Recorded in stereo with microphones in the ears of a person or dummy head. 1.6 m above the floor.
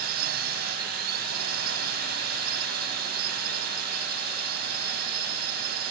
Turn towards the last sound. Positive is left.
turn(degrees=-50)  # may be behind; listen again after turning